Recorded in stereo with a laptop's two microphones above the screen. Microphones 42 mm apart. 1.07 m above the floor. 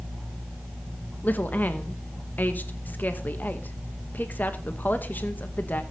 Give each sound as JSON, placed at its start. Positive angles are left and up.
{"t": 1.2, "sound": "a woman speaking", "side_deg": 45, "distance_m": 1.1}